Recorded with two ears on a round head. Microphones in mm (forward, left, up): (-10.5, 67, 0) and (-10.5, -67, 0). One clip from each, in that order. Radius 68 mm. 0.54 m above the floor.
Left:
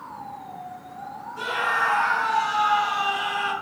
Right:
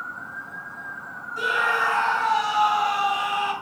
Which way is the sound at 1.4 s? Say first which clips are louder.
Right 2 dB; 45° right (ahead or behind).